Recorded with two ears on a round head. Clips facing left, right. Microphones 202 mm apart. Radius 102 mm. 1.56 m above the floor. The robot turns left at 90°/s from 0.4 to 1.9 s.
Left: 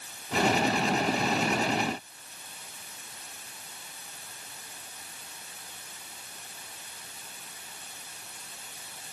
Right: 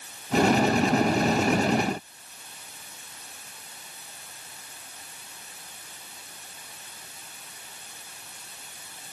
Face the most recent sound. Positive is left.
No sound to turn to.